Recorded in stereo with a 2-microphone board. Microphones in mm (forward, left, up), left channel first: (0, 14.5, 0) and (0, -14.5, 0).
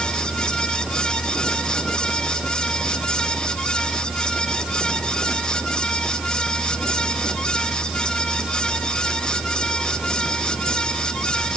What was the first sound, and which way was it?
Only background noise.